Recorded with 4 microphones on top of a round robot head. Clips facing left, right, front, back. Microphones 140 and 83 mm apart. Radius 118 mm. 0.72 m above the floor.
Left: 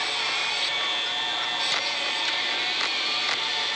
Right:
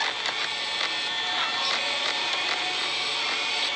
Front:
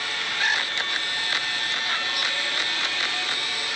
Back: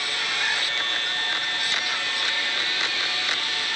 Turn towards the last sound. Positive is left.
No sound to turn to.